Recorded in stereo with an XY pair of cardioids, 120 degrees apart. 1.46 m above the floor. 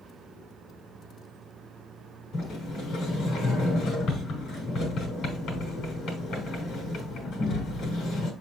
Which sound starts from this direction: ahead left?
A sliding door, at 2.3 s.